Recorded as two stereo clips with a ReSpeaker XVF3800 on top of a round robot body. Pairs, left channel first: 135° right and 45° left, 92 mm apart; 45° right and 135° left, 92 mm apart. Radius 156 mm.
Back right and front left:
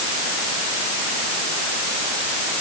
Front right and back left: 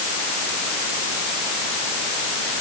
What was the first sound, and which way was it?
Only background noise.